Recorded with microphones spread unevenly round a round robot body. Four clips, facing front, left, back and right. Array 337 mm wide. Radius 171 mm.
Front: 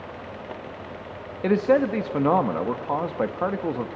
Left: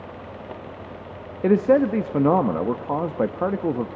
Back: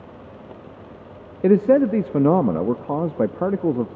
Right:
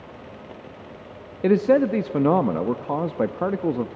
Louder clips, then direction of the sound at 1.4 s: Even, back 5 dB; straight behind.